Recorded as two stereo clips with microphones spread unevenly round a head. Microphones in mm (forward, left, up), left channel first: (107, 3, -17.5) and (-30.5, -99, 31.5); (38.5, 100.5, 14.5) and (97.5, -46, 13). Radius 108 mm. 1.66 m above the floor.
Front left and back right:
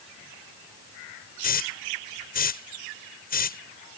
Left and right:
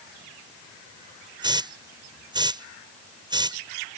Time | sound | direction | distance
1.4 | a hiss | 5° right | ?